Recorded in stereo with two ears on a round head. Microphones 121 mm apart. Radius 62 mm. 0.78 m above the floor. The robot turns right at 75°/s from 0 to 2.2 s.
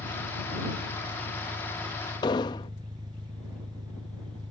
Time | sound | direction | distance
0.0 | an engine running | 50° left | ?
2.2 | an explosion | 30° left (ahead or behind) | ?